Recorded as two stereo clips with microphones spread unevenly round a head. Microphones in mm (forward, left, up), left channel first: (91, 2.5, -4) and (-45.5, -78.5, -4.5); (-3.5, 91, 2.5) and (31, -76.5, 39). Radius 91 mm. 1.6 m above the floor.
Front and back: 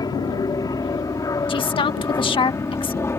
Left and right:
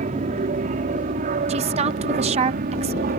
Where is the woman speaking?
25° right.